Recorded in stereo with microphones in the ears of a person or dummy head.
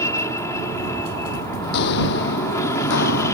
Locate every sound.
0.0 s an aircraft: 15° left (ahead or behind)
1.6 s footsteps: 55° left (ahead or behind); by 3.3 s 65° left (ahead or behind)